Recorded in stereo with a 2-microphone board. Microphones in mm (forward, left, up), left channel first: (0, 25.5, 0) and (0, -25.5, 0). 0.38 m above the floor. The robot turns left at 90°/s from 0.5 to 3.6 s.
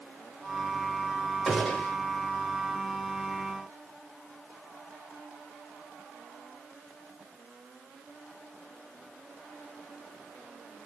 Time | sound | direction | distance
1.5 | a gunshot | 175° right | 0.8 m